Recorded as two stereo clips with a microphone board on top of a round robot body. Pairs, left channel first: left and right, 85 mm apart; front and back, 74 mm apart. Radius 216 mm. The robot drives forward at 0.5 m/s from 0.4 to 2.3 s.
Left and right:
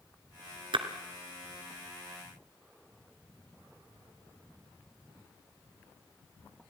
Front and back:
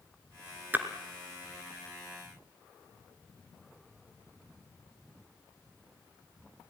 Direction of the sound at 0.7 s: 115° right.